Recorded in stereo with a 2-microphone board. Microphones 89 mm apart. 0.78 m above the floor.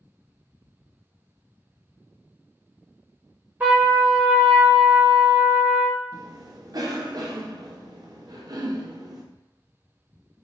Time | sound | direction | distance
3.6 | a trumpet | 20° right (ahead or behind) | 1.3 m
6.1 | a cough | 45° right (ahead or behind) | 0.7 m